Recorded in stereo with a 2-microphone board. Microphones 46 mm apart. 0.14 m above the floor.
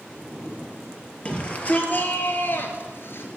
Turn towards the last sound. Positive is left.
turn(degrees=60)  # may be behind; listen again after turning